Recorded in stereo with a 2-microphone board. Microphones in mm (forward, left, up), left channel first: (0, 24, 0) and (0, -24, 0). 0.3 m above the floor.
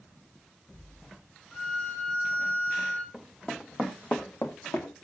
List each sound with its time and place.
1.5 s a violin: 20° left (ahead or behind), 5 m
3.1 s running footsteps: centre (ahead or behind), 1.8 m; by 4.9 s 75° left (ahead or behind), 2.0 m